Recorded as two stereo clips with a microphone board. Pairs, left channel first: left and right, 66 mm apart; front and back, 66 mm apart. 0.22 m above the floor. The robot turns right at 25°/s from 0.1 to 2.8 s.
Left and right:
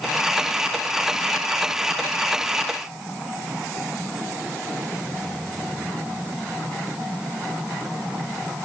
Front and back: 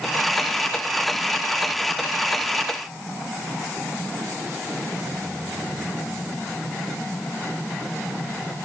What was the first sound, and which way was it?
Only background noise.